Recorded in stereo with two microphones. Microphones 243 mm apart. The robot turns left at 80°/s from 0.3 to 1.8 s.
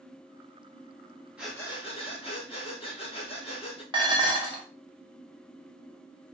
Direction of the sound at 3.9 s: 20° right (ahead or behind).